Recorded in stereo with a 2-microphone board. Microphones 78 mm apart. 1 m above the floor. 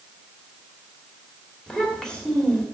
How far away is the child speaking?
About 2.5 m.